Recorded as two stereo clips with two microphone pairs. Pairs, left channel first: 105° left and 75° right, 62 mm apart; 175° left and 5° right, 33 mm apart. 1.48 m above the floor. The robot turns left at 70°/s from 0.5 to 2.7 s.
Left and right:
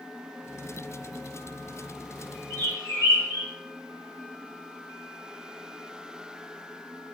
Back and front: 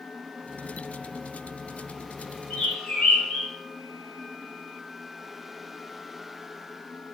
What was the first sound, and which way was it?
A bird, 145° left.